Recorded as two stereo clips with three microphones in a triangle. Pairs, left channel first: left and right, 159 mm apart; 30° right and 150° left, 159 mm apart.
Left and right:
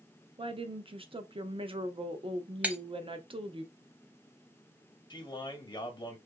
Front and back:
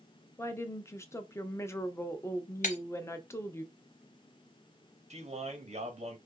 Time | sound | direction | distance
0.4 | a woman speaking | 90° right | 0.6 m
2.6 | breaking glass | 10° right | 0.8 m
5.1 | a man speaking | 135° left | 1.1 m